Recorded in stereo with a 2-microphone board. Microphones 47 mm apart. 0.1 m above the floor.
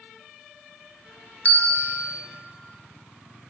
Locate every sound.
1.4 s a bell: 35° left (ahead or behind), 0.8 m